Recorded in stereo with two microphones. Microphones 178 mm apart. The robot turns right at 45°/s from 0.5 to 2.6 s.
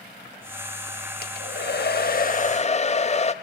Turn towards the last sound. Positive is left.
turn(degrees=140)